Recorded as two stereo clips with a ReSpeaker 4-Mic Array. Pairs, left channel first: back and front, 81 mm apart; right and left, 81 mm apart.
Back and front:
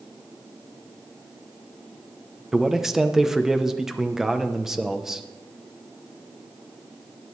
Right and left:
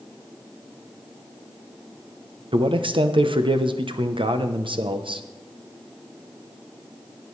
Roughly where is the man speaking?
Left.